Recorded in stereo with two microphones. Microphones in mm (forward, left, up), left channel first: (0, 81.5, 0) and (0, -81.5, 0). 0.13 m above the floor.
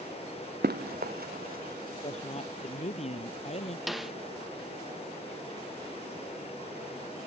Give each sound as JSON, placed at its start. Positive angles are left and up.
{"t": 0.6, "sound": "running footsteps", "side_deg": -75}
{"t": 2.0, "sound": "a man speaking", "side_deg": 40}
{"t": 3.9, "sound": "a snare drum", "side_deg": 0}